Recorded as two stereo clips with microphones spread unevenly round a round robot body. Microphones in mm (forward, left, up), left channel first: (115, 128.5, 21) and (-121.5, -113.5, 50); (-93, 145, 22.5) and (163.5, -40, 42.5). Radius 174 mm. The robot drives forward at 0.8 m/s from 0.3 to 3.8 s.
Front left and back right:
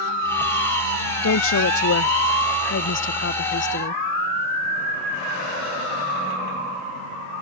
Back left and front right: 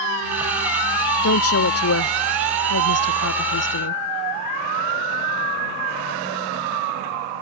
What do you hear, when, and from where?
1.2 s a woman speaking: 100° left; by 4.0 s 105° left